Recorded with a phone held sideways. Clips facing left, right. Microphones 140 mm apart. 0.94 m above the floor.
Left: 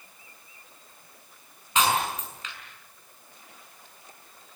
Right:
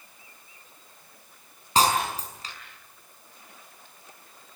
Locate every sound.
1.8 s breaking glass: 35° right (ahead or behind), 5.5 m